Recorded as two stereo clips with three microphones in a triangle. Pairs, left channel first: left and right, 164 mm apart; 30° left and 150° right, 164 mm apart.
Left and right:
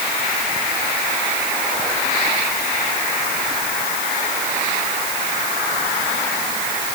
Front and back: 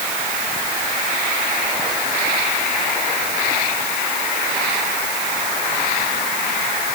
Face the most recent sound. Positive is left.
No sound to turn to.